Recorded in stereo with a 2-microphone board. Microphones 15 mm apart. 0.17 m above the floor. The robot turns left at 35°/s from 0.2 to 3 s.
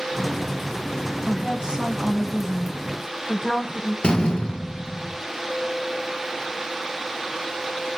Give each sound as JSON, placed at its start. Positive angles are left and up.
{"t": 1.2, "sound": "a woman speaking", "azimuth_deg": -115, "distance_m": 9.5}
{"t": 4.0, "sound": "a door slam", "side_deg": 70, "distance_m": 3.0}